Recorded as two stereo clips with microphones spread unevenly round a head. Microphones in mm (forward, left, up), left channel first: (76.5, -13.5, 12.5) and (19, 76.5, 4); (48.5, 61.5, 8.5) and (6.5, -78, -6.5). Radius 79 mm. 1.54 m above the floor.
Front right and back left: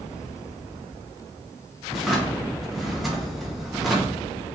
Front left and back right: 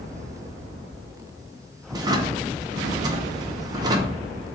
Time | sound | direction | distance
1.9 | a drawer | 140° right | 0.6 m